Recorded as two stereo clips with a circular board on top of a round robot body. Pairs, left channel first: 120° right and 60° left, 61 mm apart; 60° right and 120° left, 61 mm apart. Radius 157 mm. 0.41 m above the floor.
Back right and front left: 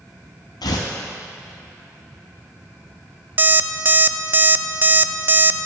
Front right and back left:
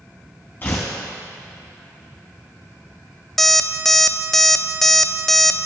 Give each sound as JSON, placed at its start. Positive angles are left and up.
{"t": 0.6, "sound": "tearing paper", "azimuth_deg": -120, "distance_m": 0.6}
{"t": 3.4, "sound": "an alarm clock", "azimuth_deg": 20, "distance_m": 0.5}